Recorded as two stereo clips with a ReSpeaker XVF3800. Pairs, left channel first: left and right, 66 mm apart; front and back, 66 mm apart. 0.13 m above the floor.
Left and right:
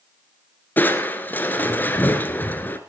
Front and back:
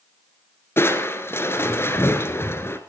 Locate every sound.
0.8 s crushing: 35° left, 1.6 m